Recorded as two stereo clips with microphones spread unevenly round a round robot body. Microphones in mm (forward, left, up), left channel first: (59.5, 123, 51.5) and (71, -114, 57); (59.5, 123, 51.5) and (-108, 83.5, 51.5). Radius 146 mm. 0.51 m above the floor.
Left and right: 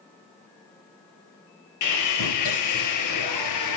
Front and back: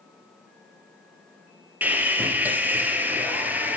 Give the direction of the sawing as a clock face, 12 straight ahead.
8 o'clock.